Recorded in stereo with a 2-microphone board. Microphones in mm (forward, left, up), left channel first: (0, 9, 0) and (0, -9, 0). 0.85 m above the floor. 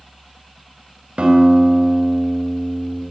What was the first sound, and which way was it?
A guitar, 85° right.